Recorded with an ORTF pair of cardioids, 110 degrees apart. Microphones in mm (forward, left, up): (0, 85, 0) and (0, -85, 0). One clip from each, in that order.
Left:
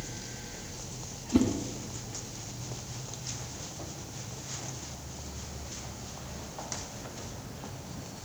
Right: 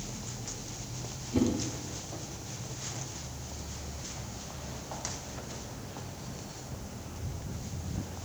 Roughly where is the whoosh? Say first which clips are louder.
Left 3 dB; ahead left.